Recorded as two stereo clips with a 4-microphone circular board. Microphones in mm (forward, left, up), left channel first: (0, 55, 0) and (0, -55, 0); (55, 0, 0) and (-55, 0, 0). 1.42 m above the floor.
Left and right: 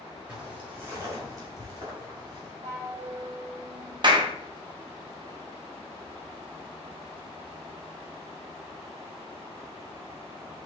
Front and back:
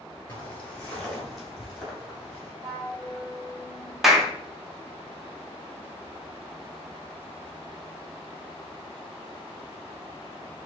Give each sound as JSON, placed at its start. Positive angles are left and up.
{"t": 0.3, "sound": "footsteps", "azimuth_deg": -25, "distance_m": 1.4}
{"t": 2.6, "sound": "a flute", "azimuth_deg": -115, "distance_m": 1.3}
{"t": 4.0, "sound": "a clap", "azimuth_deg": -95, "distance_m": 0.7}